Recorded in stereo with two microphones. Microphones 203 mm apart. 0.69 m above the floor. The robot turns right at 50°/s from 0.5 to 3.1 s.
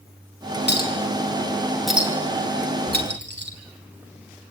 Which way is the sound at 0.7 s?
60° left (ahead or behind).